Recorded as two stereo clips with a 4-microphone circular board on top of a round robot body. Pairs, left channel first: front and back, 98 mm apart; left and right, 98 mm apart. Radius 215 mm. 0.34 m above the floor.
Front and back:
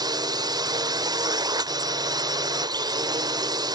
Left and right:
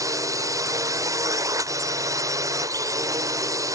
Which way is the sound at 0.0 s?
140° right.